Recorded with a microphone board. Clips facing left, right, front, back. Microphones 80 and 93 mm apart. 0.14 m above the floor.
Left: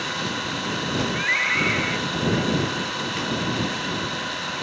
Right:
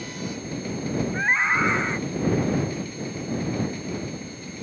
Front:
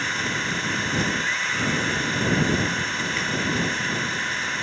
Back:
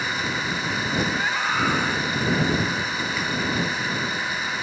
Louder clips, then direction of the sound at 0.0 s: Left 5 dB, even; 95° left.